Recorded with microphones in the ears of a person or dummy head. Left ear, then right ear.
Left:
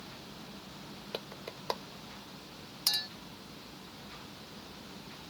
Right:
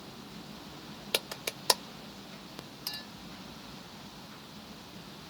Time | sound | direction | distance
1.1 | a clap | 75° right (ahead or behind) | ?
2.9 | a clink | 30° left (ahead or behind) | ?